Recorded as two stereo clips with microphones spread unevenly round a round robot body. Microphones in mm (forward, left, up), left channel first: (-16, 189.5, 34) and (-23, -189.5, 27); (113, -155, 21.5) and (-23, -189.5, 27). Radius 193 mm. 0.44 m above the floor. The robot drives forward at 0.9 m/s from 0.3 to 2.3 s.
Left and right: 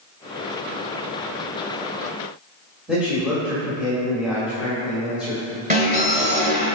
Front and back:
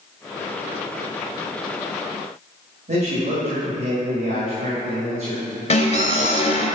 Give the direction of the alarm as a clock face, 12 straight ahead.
1 o'clock.